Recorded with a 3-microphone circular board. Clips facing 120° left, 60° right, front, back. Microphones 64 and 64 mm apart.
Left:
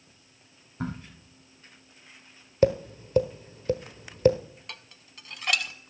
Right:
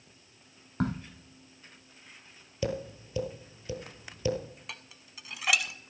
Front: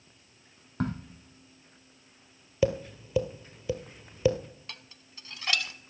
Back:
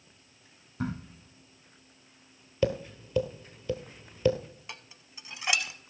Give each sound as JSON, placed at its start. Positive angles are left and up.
{"t": 0.8, "sound": "a crack", "azimuth_deg": -35, "distance_m": 2.5}
{"t": 2.6, "sound": "tapping", "azimuth_deg": 75, "distance_m": 1.3}
{"t": 4.7, "sound": "dishes clattering", "azimuth_deg": -135, "distance_m": 0.7}